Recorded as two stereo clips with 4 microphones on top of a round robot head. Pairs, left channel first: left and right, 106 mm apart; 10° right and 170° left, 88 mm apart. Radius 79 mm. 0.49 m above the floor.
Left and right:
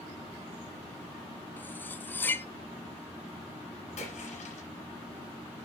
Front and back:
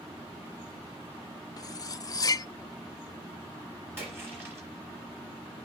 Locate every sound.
1.6 s cutlery clinking: 20° left, 0.5 m
4.0 s a splash: 105° left, 4.5 m